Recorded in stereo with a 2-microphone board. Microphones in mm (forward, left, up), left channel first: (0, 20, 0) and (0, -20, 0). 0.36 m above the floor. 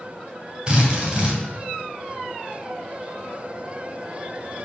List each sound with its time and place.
0.7 s a drill: 25° right (ahead or behind), 3.5 m